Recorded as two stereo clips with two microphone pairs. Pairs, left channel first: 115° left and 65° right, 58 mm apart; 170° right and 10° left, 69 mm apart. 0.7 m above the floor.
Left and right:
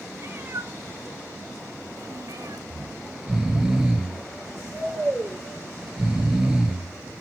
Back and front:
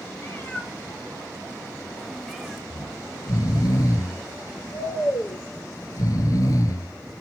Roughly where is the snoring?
Behind right.